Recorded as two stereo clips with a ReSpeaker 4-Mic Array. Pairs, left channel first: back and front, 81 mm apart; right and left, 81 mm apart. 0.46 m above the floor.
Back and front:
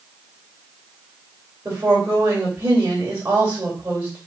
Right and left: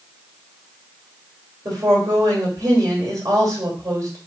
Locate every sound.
1.6 s a woman speaking: 60° left, 2.5 m